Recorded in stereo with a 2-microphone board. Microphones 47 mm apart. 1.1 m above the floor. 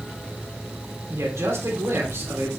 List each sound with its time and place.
1.1 s a man speaking: 80° right, 3 m